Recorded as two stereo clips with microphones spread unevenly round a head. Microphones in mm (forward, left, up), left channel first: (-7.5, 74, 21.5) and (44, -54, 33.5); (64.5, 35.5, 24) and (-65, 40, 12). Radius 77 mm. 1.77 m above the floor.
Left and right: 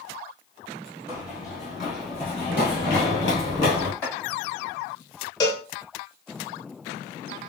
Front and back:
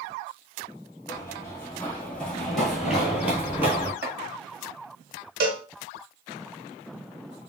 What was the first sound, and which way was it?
Running footsteps, 5° right.